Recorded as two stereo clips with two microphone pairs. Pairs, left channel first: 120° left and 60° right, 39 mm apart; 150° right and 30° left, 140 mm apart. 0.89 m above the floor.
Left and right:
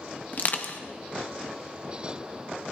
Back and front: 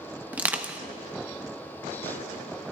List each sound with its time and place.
0.3 s crushing: 105° left, 1.1 m